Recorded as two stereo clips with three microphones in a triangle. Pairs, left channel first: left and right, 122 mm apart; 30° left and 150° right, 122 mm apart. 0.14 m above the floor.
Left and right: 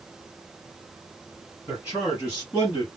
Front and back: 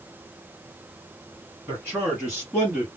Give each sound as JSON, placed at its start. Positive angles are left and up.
{"t": 1.7, "sound": "a man speaking", "azimuth_deg": 145, "distance_m": 2.5}